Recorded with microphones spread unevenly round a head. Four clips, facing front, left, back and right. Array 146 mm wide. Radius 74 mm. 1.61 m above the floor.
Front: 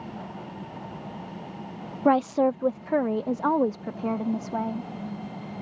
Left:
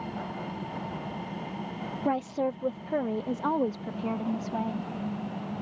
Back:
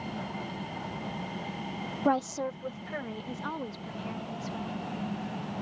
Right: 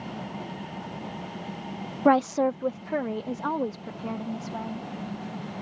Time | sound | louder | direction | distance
2.0 | a woman speaking | right 8 dB, front 8 dB | 60° right | ?